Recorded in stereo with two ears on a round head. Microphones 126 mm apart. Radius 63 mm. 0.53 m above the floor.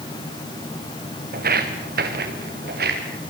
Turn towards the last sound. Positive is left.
turn(degrees=-75)  # may be behind; listen again after turning